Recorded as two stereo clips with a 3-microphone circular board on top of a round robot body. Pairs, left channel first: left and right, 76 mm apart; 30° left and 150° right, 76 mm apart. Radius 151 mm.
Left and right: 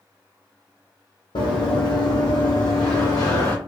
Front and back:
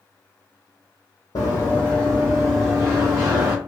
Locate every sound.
1.4 s running footsteps: 85° left, 0.6 m; by 3.5 s 135° left, 1.4 m